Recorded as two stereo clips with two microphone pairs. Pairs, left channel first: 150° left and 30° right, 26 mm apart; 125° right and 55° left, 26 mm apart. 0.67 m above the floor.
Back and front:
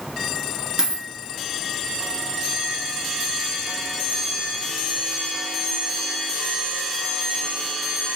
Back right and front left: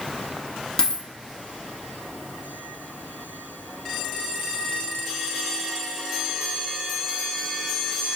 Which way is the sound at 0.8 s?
85° right.